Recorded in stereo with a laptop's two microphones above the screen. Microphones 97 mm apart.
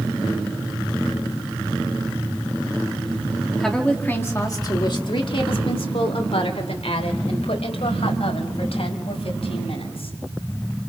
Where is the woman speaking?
5° left (ahead or behind), 2 m; by 10.1 s 80° left, 8 m.